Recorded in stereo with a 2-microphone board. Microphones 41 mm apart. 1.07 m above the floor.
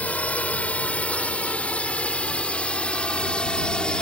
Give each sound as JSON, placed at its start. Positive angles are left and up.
{"t": 0.0, "sound": "a drone", "side_deg": 35}